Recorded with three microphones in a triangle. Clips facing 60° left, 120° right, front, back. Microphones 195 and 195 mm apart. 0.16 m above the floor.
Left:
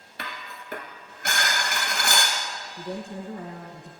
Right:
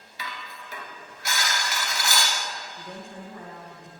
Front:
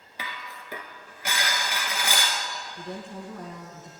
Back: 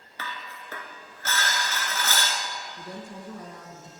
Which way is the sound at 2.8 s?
100° left.